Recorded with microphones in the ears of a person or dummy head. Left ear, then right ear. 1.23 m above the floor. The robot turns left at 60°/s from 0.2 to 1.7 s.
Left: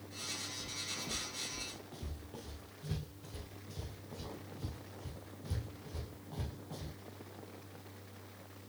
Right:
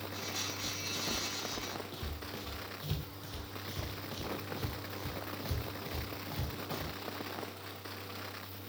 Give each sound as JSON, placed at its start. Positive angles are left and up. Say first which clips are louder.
{"t": 0.6, "sound": "footsteps", "louder": "right 4 dB", "side_deg": 35, "distance_m": 2.5}